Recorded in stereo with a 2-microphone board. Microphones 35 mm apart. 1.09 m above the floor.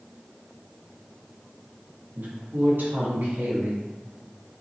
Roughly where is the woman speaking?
Right.